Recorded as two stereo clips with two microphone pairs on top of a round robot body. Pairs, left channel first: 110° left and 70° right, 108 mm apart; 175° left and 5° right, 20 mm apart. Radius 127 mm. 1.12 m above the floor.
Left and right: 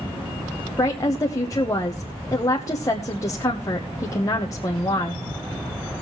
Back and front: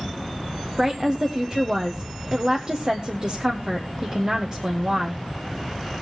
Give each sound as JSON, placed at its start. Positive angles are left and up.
{"t": 0.8, "sound": "a woman speaking", "azimuth_deg": 50, "distance_m": 1.0}